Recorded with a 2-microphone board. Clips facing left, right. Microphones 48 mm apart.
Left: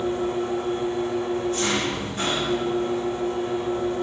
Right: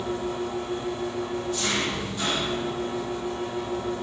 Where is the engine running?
40° left (ahead or behind), 5 m.